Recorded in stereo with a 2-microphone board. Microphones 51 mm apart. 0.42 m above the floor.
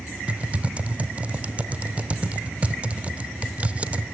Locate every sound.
0.3 s typing on a keyboard: 25° right (ahead or behind), 0.8 m